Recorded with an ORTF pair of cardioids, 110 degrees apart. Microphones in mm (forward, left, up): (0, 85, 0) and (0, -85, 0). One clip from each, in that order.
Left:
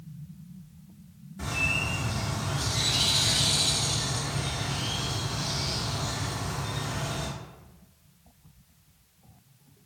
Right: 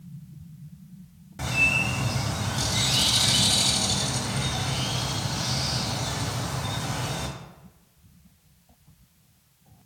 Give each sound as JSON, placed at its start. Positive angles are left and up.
{"t": 1.4, "sound": "a bird", "azimuth_deg": -50, "distance_m": 0.6}